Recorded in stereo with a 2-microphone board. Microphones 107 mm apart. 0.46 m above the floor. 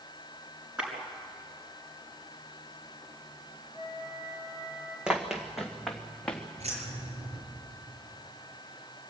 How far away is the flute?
About 4 m.